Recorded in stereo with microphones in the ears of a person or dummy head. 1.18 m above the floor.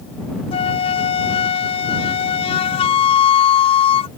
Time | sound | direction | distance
0.5 | a flute | 30° left (ahead or behind) | ?